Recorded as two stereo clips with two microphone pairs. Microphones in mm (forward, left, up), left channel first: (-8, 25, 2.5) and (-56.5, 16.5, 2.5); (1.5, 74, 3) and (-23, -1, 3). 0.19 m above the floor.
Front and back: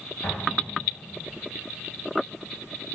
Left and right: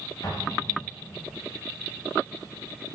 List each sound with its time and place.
0.2 s an explosion: 50° left, 4 m